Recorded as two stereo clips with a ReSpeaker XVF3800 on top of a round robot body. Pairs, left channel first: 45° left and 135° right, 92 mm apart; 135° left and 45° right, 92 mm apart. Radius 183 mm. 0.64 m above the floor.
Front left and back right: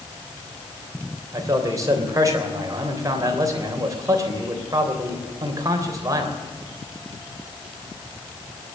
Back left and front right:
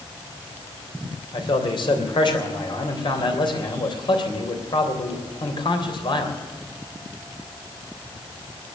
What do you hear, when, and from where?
1.3 s a man speaking: 170° left, 3.5 m